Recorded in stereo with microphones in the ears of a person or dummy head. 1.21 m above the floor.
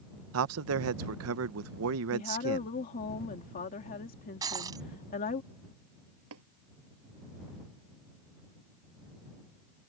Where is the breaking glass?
20° right (ahead or behind).